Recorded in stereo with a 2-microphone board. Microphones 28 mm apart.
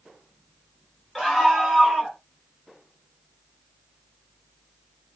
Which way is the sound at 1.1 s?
15° left (ahead or behind).